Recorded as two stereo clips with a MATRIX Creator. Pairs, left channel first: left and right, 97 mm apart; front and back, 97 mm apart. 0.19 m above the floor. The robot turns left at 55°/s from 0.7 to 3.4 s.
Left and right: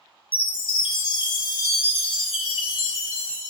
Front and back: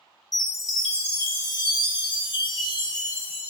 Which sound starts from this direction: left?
A chime, at 0.3 s.